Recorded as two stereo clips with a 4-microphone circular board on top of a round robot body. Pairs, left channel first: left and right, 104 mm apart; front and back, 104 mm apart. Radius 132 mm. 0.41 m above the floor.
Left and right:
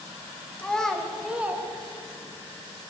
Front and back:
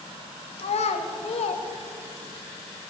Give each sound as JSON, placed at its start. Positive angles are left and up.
{"t": 0.6, "sound": "a child speaking", "azimuth_deg": 10, "distance_m": 1.3}